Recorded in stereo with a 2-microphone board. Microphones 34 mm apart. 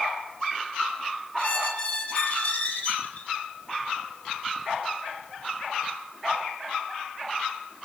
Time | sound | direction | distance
1.4 | a squeak | 35° left (ahead or behind) | 5.5 m